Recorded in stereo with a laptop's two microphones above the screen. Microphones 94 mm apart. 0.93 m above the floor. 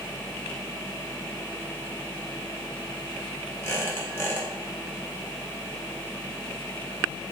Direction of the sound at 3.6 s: 25° left (ahead or behind).